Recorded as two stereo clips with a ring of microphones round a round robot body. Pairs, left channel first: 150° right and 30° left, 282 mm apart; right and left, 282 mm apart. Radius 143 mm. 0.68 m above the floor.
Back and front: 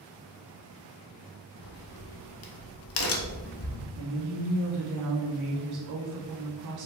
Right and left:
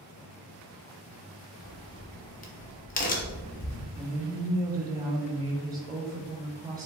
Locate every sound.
1.6 s a crack: 140° right, 0.8 m
4.0 s a woman speaking: 15° left, 1.6 m